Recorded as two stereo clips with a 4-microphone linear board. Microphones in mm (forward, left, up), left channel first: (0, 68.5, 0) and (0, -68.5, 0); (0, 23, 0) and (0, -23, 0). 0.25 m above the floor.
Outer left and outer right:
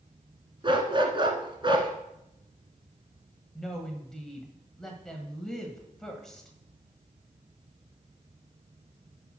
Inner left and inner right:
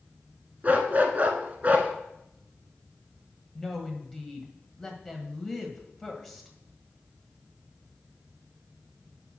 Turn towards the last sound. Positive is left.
turn(degrees=5)  # may be behind; listen again after turning